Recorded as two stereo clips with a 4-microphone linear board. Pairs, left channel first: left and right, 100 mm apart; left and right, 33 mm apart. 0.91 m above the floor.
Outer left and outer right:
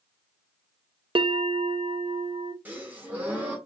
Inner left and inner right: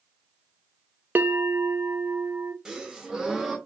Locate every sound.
1.1 s a bell: 60° right (ahead or behind), 0.6 m
2.6 s a gasp: 20° right (ahead or behind), 2 m